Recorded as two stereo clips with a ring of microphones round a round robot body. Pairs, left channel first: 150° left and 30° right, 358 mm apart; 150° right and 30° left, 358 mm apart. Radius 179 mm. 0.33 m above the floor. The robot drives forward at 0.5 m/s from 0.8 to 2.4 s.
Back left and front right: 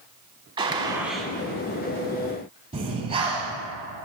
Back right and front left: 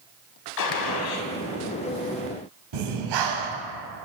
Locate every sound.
0.6 s a gunshot: 110° right, 0.8 m; by 1.3 s 125° right, 0.9 m
2.7 s breathing: 45° left, 1.3 m